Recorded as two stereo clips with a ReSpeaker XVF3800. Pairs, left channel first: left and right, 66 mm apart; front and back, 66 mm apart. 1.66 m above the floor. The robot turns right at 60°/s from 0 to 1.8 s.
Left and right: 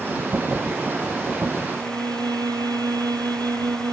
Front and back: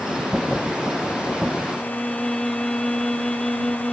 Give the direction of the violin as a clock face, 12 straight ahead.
3 o'clock.